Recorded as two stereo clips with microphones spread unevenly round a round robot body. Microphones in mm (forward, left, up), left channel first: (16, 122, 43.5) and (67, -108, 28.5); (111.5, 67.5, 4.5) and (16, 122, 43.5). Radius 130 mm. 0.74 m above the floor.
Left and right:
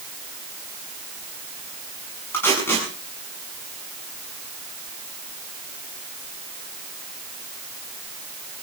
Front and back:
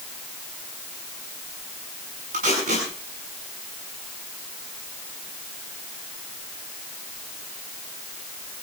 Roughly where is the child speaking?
No child speaking in this recording.